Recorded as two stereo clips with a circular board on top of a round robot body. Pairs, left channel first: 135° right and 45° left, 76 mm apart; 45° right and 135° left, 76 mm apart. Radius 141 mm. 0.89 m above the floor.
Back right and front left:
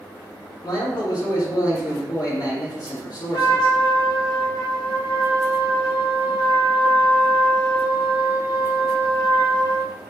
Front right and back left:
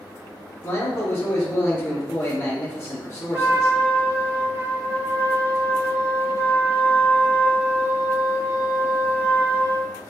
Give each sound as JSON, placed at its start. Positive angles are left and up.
{"t": 0.6, "sound": "a man speaking", "azimuth_deg": -105, "distance_m": 2.0}
{"t": 3.3, "sound": "a trumpet", "azimuth_deg": -165, "distance_m": 1.1}